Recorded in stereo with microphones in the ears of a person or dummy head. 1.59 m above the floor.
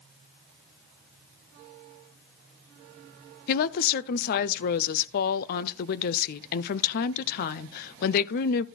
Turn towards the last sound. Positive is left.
turn(degrees=50)  # may be behind; listen again after turning